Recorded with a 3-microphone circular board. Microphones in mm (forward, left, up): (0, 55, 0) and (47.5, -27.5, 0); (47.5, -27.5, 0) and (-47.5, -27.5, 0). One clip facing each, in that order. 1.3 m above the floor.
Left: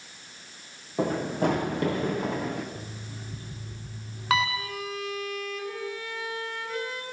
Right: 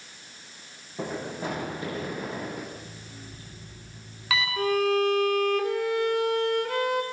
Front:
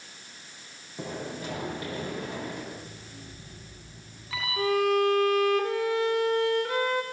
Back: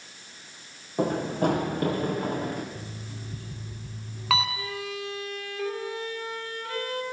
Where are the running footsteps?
150° left, 4.5 m; by 2.6 s 135° left, 5 m.